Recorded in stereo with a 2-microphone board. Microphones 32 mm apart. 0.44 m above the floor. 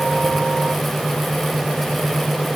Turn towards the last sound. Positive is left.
No sound to turn to.